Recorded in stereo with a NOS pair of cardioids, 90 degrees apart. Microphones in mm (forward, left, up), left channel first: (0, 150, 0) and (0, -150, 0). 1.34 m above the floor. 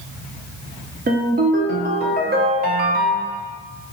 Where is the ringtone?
35° right, 0.7 m.